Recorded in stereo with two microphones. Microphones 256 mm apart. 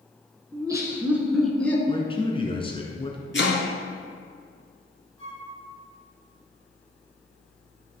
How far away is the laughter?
About 1.7 m.